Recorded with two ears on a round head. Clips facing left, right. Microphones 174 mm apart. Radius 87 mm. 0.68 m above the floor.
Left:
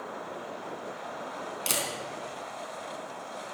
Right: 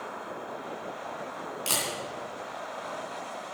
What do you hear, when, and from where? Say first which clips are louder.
1.7 s a camera shutter: even; 20° left (ahead or behind), 3 m